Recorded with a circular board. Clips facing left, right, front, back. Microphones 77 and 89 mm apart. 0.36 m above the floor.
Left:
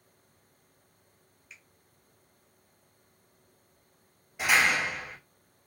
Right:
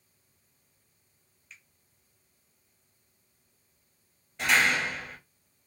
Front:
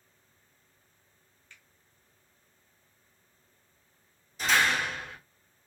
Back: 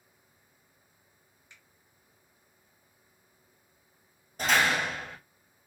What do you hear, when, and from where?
1.5 s a finger snap: 165° left, 0.8 m
4.4 s a door slam: 165° left, 1.3 m